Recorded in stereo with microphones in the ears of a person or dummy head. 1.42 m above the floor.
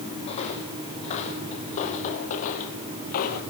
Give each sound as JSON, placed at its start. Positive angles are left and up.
{"t": 0.2, "sound": "footsteps", "side_deg": 30, "distance_m": 4.5}